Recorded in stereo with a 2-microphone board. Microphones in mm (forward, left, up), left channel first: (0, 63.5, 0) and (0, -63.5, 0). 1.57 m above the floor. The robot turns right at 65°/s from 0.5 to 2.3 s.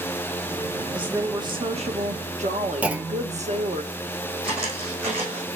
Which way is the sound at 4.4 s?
55° right (ahead or behind).